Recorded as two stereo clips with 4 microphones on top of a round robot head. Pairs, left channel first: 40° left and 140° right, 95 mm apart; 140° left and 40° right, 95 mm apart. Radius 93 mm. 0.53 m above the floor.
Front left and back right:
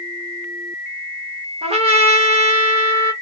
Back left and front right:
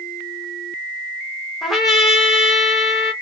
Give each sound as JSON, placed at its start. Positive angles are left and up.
{"t": 1.6, "sound": "a trumpet", "azimuth_deg": -130, "distance_m": 0.9}